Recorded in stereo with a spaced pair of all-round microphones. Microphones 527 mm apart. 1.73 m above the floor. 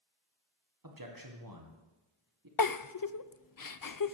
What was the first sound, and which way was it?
A man speaking, 40° right (ahead or behind).